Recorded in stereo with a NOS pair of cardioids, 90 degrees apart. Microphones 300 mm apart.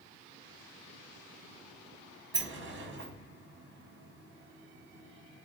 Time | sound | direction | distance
2.3 | a sliding door | 40° right | 0.9 m